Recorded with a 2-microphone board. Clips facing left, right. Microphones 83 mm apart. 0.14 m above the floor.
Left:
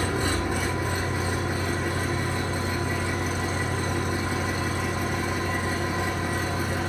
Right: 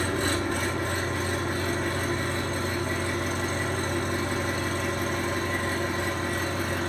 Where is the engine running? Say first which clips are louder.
Left 1 dB; 10° left (ahead or behind), 3 m.